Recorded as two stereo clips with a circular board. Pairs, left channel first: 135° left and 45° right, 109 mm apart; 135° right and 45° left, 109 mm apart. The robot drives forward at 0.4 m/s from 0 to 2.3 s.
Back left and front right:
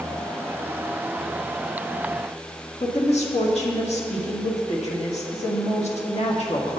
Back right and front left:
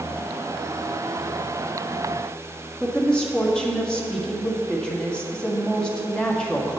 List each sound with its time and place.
2.8 s a woman speaking: 145° left, 1.6 m